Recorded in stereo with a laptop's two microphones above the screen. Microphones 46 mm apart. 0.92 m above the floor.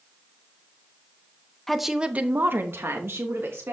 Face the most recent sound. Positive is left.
turn(degrees=-70)  # may be behind; listen again after turning